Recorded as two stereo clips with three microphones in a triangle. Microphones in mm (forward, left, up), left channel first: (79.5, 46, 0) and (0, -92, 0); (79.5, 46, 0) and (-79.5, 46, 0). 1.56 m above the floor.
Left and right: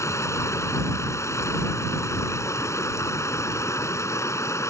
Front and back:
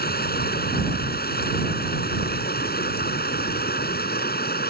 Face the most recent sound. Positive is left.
turn(degrees=-10)